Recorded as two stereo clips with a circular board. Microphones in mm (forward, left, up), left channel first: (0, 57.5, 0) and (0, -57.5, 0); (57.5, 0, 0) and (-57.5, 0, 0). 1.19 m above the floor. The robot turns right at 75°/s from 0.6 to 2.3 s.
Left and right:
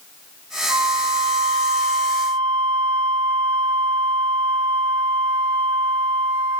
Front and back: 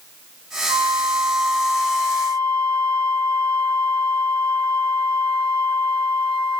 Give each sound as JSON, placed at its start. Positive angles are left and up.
{"t": 0.7, "sound": "a flute", "azimuth_deg": -145, "distance_m": 0.6}